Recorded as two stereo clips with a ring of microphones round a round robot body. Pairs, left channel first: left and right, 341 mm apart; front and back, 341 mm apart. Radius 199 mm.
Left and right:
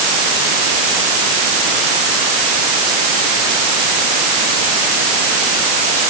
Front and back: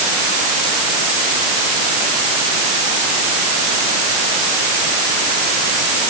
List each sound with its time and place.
Only background noise.